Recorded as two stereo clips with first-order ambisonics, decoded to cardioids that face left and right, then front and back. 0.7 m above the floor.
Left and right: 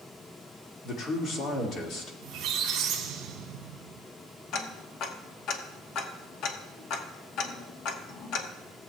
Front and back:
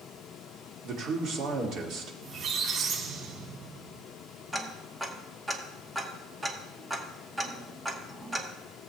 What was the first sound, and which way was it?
A man speaking, 135° left.